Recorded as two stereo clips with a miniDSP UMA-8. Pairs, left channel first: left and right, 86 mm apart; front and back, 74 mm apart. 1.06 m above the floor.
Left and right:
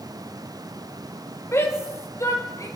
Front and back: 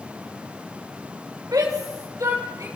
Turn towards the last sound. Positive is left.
turn(degrees=140)